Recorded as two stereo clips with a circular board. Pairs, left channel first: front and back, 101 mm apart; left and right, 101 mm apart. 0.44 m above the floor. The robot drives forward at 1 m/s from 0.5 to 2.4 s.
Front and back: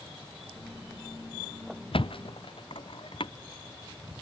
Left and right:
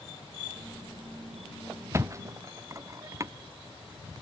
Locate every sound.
1.9 s a thud: 30° right